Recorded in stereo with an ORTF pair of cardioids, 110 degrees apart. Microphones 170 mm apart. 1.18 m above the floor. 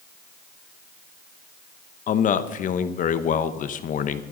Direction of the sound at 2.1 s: 50° left.